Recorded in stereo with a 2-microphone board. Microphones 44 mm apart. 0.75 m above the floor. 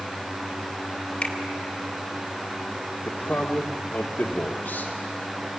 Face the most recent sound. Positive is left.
turn(degrees=50)  # may be behind; listen again after turning